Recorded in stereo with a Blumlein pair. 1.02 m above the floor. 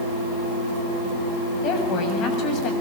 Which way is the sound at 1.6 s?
35° left.